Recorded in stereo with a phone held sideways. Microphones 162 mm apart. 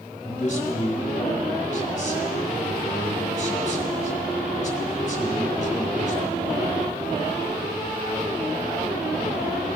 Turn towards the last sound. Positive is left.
turn(degrees=45)  # may be behind; listen again after turning